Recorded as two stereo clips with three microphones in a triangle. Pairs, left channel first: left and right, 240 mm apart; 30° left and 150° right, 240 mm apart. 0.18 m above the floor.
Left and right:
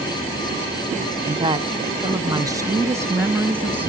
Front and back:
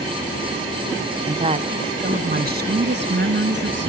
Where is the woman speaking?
115° right, 1.1 m; by 3.9 s 175° right, 1.9 m.